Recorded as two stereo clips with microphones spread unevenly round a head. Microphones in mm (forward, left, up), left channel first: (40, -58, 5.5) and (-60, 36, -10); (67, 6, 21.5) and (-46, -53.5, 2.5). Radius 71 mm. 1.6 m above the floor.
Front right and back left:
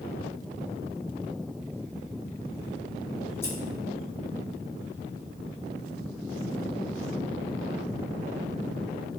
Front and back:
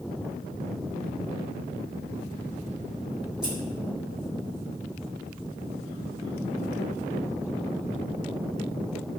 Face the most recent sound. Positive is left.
turn(degrees=-55)